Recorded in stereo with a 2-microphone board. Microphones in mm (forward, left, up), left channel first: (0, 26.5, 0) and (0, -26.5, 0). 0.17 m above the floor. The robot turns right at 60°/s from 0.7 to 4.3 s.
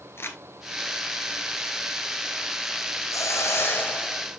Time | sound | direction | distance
0.2 | crumpling | 50° left (ahead or behind) | 1.6 m
3.1 | a hiss | 105° left | 1.7 m